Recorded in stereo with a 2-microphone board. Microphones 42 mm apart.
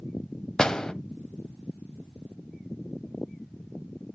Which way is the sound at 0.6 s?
15° left (ahead or behind).